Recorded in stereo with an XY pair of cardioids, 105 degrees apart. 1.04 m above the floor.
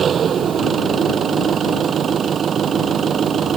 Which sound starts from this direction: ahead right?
An engine running, at 0.0 s.